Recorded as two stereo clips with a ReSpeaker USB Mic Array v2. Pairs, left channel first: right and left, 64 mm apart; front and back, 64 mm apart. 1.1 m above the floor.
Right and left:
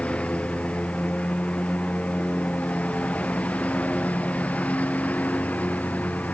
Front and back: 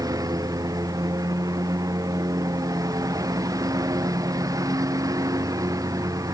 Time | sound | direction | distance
0.0 | a lawn mower | 160° right | ?